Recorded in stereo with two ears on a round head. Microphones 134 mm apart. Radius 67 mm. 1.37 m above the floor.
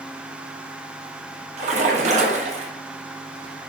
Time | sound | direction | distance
1.6 | a splash | 50° right (ahead or behind) | 0.9 m